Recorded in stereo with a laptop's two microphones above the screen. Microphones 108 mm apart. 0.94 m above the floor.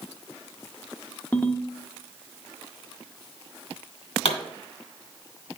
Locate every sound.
1.3 s a ringtone: 15° left (ahead or behind), 0.6 m
4.2 s a pop: 70° left (ahead or behind), 2 m